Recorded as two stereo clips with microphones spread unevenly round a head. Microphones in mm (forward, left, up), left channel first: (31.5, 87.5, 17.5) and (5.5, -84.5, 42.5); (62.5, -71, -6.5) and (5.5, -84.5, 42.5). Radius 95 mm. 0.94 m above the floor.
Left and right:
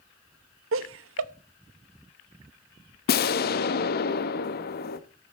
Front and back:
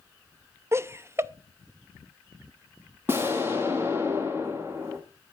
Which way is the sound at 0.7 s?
105° right.